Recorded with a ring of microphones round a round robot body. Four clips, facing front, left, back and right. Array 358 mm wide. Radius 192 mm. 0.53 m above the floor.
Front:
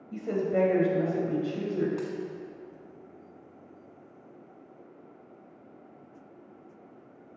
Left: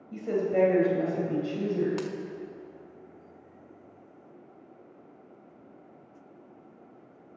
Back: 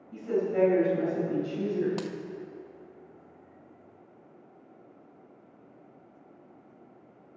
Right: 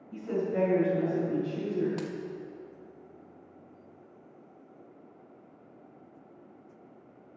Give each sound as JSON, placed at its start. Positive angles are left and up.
{"t": 0.1, "sound": "a woman speaking", "azimuth_deg": 45, "distance_m": 3.0}
{"t": 2.0, "sound": "a dropped coin", "azimuth_deg": 165, "distance_m": 0.6}